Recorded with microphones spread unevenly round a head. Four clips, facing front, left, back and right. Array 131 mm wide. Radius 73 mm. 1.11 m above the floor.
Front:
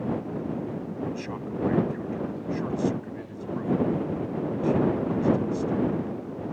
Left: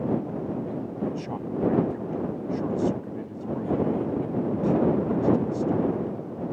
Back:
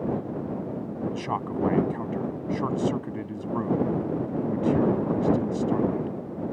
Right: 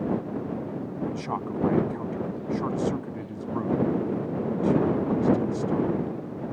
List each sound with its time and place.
1.1 s a man speaking: 175° left